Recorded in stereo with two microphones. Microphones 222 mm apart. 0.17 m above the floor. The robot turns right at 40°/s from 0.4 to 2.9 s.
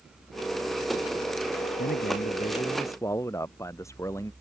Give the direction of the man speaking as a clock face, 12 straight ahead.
8 o'clock.